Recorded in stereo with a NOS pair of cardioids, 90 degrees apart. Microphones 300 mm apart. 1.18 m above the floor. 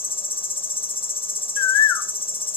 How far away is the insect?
About 0.9 m.